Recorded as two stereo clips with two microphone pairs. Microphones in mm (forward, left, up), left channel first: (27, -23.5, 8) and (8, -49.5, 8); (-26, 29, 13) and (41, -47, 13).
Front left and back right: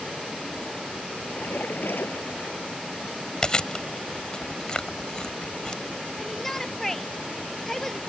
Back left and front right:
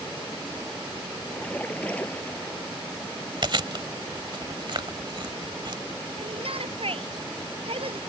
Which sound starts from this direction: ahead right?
A shout, at 6.2 s.